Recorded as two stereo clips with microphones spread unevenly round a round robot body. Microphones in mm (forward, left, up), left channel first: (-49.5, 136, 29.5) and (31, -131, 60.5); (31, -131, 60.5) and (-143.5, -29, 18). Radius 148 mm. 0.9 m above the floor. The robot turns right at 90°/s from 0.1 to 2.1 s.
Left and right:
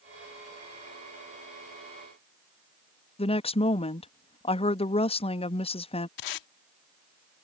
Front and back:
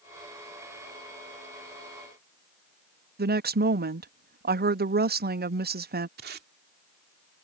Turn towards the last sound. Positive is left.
turn(degrees=90)